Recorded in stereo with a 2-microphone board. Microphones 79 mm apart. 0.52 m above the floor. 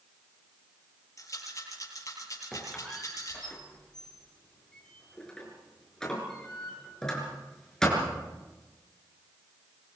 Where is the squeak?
10° left (ahead or behind), 6.5 m.